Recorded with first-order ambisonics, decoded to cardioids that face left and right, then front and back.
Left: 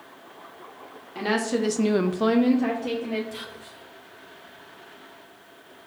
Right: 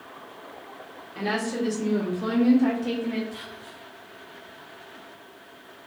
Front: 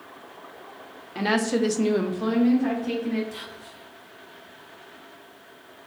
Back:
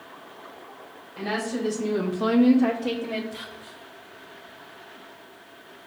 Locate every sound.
1.1 s a woman speaking: 20° left, 1.1 m; by 3.2 s 155° left, 1.4 m
3.3 s whispering: 50° left, 0.9 m